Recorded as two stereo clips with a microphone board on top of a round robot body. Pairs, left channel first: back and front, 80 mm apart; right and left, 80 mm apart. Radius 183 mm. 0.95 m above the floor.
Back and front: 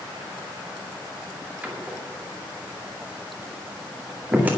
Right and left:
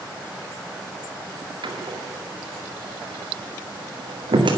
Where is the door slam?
70° left, 2 m.